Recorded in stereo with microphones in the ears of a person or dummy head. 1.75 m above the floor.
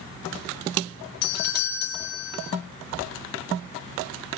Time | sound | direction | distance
1.2 | a doorbell | 60° left (ahead or behind) | 2.0 m